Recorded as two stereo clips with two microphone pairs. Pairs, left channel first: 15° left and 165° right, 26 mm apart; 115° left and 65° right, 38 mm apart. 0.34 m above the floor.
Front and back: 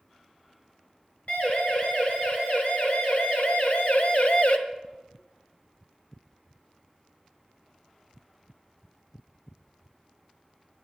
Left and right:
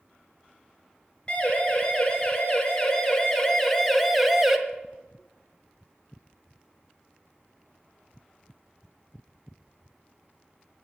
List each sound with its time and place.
1.3 s a siren: 50° left, 4 m; by 4.6 s 10° left, 1.3 m